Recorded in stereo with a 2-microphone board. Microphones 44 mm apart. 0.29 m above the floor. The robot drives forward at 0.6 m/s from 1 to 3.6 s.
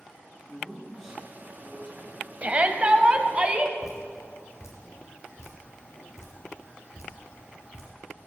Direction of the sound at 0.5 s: 5° left (ahead or behind).